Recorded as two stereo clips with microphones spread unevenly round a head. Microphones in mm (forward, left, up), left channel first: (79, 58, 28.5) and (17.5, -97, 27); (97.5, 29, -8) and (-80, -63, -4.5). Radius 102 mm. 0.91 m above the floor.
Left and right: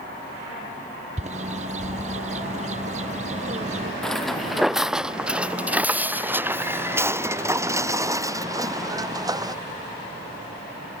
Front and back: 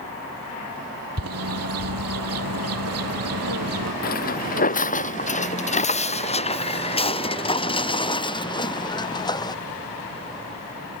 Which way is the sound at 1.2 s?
170° right.